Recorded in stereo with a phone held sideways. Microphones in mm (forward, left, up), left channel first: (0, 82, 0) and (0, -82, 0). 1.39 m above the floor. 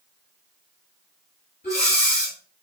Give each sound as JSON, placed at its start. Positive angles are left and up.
{"t": 1.6, "sound": "breathing", "side_deg": 60, "distance_m": 2.0}